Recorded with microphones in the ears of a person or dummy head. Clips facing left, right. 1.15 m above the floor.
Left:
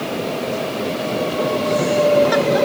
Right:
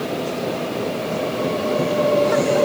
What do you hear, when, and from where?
Only background noise.